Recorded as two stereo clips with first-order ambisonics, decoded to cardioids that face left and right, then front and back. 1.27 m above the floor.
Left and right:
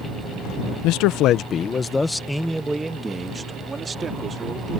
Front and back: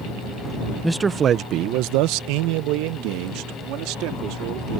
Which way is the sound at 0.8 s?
90° left.